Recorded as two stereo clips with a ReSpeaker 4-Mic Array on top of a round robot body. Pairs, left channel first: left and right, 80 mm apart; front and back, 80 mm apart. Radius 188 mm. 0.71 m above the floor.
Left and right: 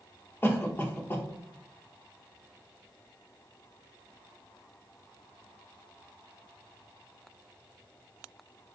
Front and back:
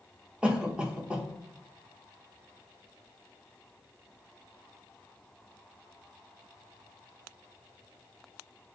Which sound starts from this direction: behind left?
A cough, at 0.4 s.